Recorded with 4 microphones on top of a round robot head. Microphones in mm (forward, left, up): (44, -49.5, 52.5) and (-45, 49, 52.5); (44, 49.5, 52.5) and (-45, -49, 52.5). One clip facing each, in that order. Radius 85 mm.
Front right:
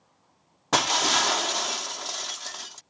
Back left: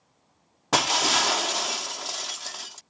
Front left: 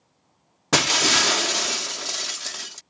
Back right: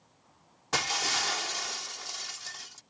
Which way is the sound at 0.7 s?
45° left.